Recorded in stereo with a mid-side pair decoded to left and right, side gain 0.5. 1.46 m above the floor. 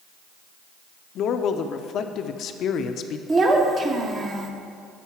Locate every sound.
1.1 s a man speaking: 60° left, 0.7 m
3.3 s a child speaking: 35° right, 1.3 m